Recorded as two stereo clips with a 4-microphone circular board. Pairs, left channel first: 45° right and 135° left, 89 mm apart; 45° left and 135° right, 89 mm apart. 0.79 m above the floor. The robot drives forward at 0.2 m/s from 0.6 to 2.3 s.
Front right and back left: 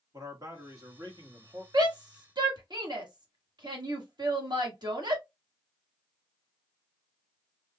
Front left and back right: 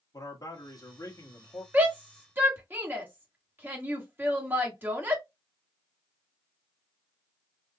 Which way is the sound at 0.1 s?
85° left.